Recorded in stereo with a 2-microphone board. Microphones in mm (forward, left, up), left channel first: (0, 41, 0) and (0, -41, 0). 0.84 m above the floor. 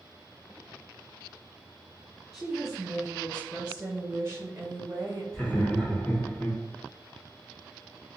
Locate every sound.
2.3 s a woman speaking: 5° right (ahead or behind), 1.4 m; by 5.2 s 30° right (ahead or behind), 1.0 m
5.3 s laughter: 10° left (ahead or behind), 1.3 m